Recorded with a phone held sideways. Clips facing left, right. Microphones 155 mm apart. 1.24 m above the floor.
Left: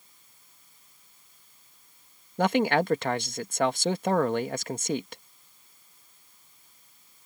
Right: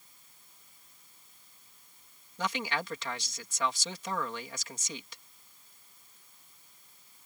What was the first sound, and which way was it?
A man speaking, 60° left (ahead or behind).